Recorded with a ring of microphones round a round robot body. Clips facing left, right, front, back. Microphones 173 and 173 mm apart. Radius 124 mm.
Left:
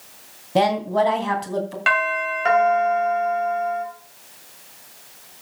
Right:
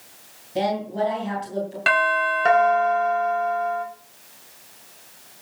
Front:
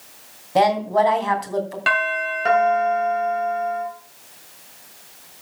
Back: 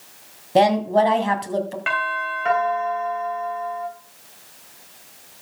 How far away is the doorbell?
About 3 m.